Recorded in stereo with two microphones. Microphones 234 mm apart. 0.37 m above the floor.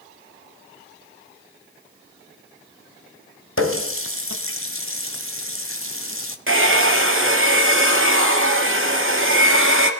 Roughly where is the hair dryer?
Right.